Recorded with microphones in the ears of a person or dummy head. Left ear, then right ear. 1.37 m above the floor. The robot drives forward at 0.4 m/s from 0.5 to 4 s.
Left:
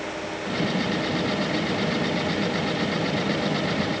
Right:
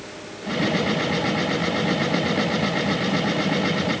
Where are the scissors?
I don't hear scissors.